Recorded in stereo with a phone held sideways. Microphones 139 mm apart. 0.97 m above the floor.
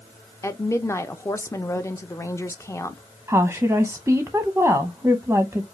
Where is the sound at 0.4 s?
20° left (ahead or behind), 0.5 m.